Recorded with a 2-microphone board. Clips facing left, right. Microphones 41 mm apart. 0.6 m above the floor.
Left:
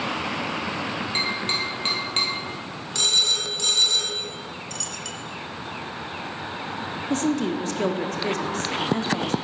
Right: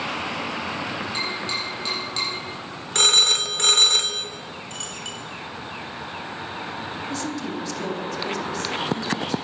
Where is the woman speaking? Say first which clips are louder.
Left 8 dB; 40° left (ahead or behind), 0.9 m.